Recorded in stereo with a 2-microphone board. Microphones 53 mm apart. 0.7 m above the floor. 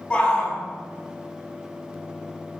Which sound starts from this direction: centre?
A shout, at 0.1 s.